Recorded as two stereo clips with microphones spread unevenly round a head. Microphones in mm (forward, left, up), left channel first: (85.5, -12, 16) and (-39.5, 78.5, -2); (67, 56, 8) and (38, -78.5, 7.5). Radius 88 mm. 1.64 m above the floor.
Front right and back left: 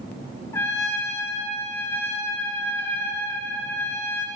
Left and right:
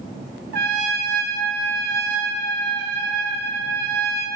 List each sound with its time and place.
0.5 s a trumpet: 115° right, 1.5 m